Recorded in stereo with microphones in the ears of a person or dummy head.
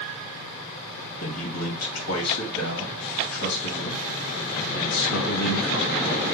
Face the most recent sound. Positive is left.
turn(degrees=80)